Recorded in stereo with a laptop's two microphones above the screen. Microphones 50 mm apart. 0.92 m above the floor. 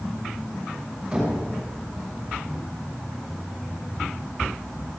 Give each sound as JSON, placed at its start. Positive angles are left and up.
{"t": 1.1, "sound": "knocking", "side_deg": -15, "distance_m": 6.0}